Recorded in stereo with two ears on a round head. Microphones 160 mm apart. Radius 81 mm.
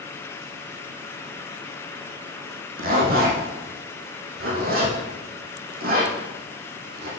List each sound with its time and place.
2.8 s a zipper: 55° right (ahead or behind), 4.5 m